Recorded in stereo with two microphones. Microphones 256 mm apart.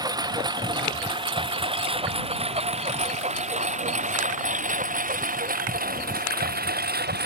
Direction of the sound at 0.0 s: 15° right (ahead or behind).